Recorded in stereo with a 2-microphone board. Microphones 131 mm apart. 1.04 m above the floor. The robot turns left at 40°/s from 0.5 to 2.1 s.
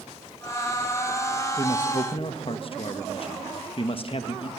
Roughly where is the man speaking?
Left.